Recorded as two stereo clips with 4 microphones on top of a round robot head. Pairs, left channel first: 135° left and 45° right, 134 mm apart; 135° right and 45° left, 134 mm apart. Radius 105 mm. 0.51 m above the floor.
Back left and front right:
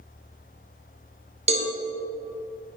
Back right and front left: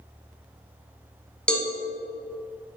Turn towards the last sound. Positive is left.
turn(degrees=-55)